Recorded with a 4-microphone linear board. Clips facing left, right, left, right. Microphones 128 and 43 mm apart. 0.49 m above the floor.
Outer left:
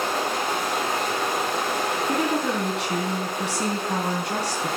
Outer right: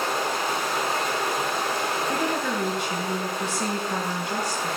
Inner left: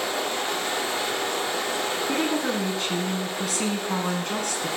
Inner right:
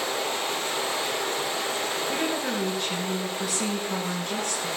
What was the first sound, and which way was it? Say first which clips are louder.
Running water: outer left 1 dB, inner left 1 dB; 80° left.